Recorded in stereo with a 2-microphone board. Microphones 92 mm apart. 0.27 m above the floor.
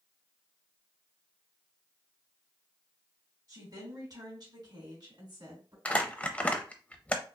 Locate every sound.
3.5 s a woman speaking: 40° right (ahead or behind), 2.5 m; by 5.8 s 55° right (ahead or behind), 2.5 m
5.8 s crumpling: 15° left (ahead or behind), 0.5 m